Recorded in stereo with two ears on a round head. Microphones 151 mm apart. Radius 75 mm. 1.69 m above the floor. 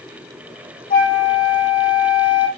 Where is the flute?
60° left (ahead or behind), 2.5 m.